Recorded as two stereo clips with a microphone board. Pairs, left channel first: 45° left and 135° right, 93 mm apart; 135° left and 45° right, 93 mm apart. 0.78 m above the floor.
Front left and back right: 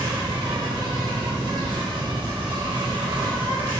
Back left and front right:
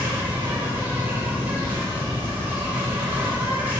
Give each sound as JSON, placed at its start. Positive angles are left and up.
{"t": 0.0, "sound": "an insect", "azimuth_deg": -110, "distance_m": 1.6}